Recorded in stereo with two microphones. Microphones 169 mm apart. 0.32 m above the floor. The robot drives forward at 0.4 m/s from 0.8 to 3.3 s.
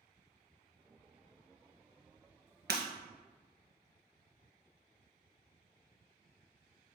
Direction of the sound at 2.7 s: 85° right.